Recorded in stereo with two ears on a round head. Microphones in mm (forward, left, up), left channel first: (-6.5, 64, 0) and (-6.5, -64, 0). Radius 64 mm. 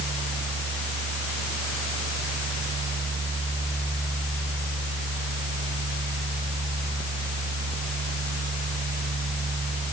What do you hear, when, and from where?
Only background noise.